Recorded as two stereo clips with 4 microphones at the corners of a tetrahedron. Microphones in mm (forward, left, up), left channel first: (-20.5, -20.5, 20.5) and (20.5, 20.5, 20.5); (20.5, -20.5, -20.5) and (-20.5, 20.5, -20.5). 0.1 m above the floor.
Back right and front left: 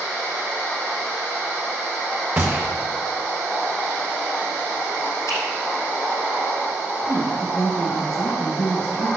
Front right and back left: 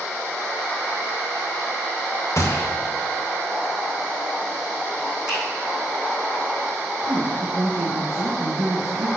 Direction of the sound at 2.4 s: 10° right.